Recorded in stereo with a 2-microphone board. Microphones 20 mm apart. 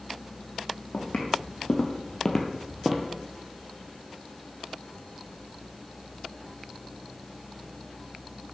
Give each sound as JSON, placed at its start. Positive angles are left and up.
{"t": 0.9, "sound": "footsteps", "side_deg": 65, "distance_m": 2.0}